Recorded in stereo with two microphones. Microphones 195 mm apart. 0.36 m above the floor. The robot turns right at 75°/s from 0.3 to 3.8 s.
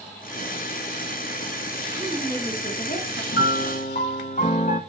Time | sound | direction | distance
1.9 | a woman speaking | 20° right | 4 m
3.3 | a piano | 100° left | 1.8 m